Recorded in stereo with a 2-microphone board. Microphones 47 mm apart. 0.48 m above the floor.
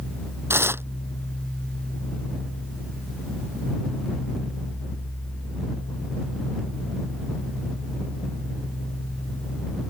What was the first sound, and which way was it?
Tearing paper, 55° right (ahead or behind).